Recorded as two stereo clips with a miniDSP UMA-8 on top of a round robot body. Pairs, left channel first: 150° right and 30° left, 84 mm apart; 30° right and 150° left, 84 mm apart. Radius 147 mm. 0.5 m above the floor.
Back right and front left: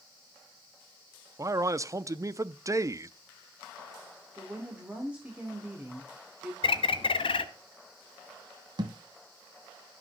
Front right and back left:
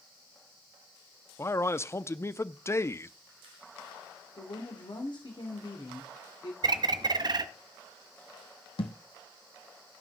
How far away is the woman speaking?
About 2.5 m.